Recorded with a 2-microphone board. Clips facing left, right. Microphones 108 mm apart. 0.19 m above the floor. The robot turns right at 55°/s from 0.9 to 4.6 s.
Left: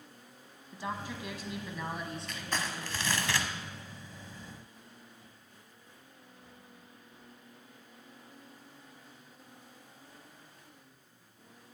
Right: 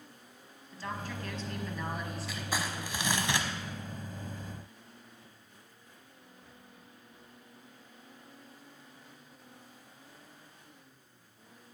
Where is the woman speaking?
15° left (ahead or behind), 1.1 m; by 3.1 s 15° right (ahead or behind), 1.1 m.